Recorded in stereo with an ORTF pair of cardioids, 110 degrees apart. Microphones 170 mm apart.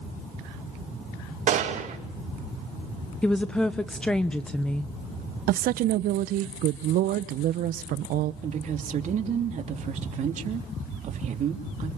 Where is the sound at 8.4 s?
50° right, 2.5 m.